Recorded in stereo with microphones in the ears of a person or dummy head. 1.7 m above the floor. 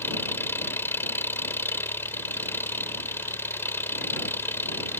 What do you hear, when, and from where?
0.0 s an engine running: 15° left (ahead or behind)